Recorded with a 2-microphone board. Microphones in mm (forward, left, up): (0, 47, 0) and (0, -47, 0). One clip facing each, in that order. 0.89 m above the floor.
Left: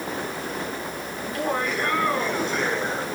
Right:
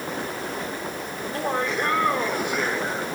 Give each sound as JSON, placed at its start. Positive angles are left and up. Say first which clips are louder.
{"t": 1.2, "sound": "laughter", "louder": "even", "side_deg": -35, "distance_m": 4.0}